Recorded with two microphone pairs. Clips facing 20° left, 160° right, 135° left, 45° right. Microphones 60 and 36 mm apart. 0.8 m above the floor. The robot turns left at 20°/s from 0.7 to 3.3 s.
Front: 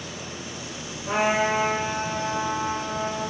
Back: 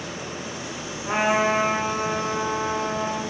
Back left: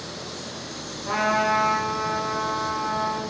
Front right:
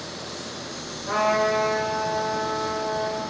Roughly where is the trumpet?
Behind.